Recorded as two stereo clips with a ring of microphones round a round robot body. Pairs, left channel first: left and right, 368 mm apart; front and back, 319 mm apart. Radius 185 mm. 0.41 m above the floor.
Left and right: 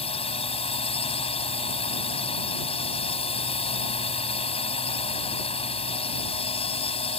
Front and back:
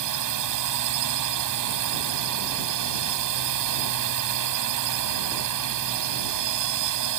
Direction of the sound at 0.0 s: 165° left.